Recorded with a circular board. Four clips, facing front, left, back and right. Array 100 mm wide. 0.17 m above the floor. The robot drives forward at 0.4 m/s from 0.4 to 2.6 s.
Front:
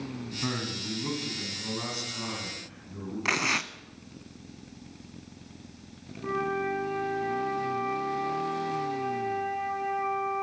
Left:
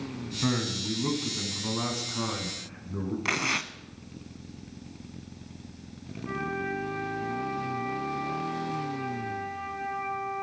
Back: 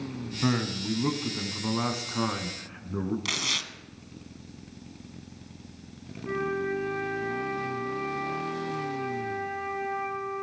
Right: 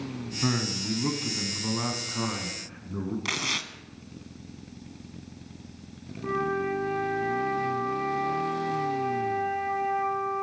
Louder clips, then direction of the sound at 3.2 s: Left 3 dB, front 6 dB; 25° left.